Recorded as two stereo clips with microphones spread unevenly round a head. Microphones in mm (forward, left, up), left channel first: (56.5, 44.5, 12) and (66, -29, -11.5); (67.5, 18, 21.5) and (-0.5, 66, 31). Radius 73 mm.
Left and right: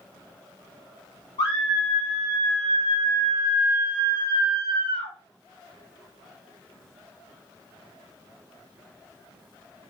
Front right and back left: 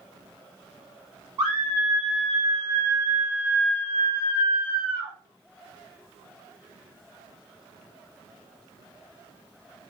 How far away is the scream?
About 1.5 m.